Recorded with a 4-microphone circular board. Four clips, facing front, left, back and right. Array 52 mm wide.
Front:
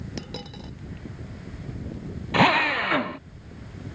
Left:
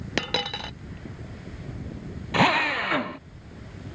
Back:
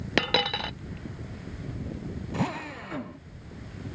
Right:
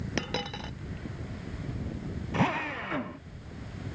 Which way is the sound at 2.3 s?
30° left.